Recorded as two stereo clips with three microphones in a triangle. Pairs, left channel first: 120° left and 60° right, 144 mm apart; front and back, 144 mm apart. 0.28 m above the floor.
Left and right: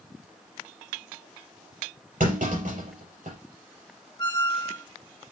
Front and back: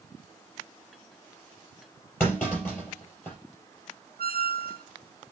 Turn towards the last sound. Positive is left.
turn(degrees=-175)